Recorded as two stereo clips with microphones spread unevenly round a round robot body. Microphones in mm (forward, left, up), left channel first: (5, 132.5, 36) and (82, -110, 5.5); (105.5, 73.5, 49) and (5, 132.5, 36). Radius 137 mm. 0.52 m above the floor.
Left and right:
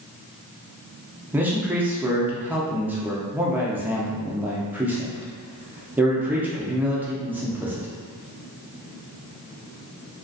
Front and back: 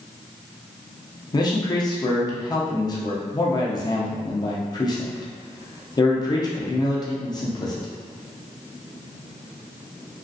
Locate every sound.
1.3 s a man speaking: 10° right, 0.7 m